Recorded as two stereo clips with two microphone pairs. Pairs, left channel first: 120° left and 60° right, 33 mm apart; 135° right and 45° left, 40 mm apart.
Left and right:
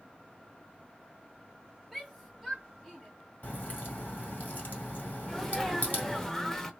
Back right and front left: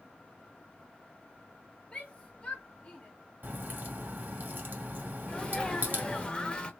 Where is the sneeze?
170° right, 0.9 m.